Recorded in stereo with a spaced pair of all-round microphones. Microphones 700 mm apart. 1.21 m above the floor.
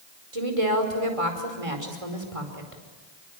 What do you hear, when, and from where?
0.3 s a woman speaking: 50° right (ahead or behind), 5 m